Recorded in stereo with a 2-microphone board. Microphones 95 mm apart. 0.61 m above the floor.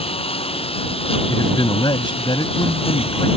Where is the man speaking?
55° left (ahead or behind).